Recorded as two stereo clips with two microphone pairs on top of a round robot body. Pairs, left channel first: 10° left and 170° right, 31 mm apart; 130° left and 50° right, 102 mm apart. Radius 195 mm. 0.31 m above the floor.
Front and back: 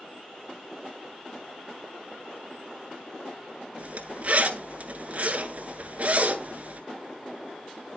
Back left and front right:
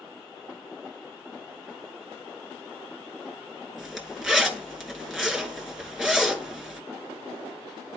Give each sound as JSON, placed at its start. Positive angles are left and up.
{"t": 3.8, "sound": "a zipper", "azimuth_deg": -135, "distance_m": 1.8}